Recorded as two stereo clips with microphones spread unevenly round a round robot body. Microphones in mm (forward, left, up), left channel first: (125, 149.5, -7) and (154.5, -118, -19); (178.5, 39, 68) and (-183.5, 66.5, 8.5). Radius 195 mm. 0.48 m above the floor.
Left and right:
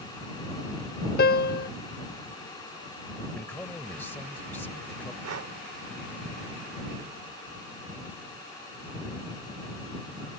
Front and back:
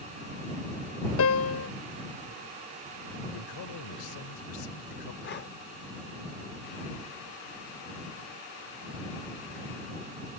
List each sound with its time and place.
1.2 s a piano: 50° left
3.3 s a man speaking: 15° left
5.2 s breathing: 70° right